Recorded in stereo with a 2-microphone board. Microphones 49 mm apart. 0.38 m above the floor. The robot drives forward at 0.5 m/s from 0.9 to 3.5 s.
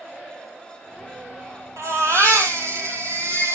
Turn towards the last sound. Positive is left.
turn(degrees=-70)  # may be behind; listen again after turning